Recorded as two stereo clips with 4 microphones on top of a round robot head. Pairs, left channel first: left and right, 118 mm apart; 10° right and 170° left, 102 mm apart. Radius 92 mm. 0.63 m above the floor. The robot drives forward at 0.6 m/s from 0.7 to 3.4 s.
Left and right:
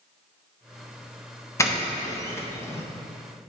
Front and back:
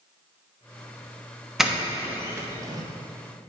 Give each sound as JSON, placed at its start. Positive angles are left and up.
{"t": 1.6, "sound": "a doorbell", "azimuth_deg": 85, "distance_m": 1.1}